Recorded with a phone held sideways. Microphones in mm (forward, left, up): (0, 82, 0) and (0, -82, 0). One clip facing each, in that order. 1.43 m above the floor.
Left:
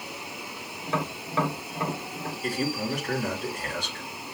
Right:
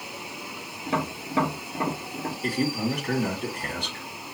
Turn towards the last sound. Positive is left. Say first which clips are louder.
# right 3 dB
turn(degrees=-55)  # may be behind; listen again after turning